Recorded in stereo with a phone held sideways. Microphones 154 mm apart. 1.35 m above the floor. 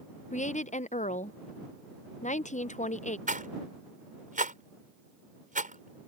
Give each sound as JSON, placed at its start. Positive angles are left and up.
{"t": 0.3, "sound": "a woman speaking", "side_deg": 50}
{"t": 3.3, "sound": "a rattle", "side_deg": -60}